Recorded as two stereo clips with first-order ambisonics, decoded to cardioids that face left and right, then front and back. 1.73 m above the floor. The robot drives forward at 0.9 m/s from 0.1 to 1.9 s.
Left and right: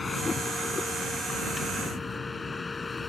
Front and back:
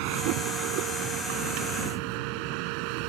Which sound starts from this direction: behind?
A vehicle, at 0.0 s.